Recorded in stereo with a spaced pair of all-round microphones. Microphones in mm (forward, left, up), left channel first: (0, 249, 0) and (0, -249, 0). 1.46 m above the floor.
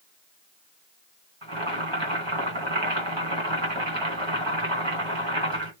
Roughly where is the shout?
No shout in this recording.